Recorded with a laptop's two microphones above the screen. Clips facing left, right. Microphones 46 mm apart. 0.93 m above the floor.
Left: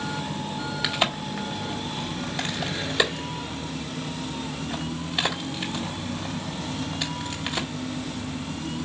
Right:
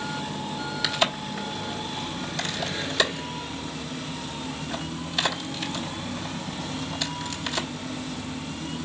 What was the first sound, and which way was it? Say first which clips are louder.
A crack: even; 15° left (ahead or behind).